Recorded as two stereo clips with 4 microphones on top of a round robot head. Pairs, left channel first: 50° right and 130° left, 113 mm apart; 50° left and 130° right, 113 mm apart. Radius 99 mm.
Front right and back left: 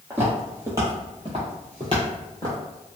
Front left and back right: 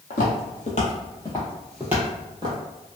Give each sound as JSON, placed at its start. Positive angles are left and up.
{"t": 0.1, "sound": "footsteps", "azimuth_deg": 55, "distance_m": 1.0}